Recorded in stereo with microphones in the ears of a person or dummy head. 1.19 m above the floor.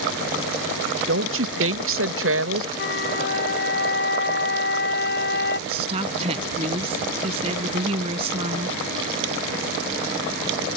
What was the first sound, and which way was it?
A woman speaking, 75° right (ahead or behind).